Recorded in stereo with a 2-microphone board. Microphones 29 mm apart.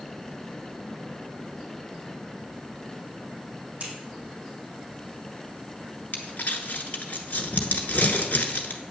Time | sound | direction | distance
3.8 | scissors | 40° right (ahead or behind) | 3 m
6.1 | crumpling | 65° left (ahead or behind) | 1.0 m